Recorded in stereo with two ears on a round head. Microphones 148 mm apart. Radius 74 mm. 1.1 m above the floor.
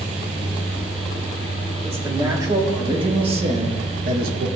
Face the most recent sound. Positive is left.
turn(degrees=-60)  # may be behind; listen again after turning